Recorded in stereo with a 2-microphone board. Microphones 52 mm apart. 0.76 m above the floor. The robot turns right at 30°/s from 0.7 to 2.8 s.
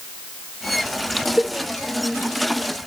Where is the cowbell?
15° right (ahead or behind), 0.5 m; by 1.6 s 10° right (ahead or behind), 0.5 m.